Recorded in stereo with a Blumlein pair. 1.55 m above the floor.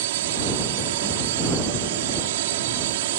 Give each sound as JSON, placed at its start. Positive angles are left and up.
{"t": 0.0, "sound": "a drone", "azimuth_deg": -55}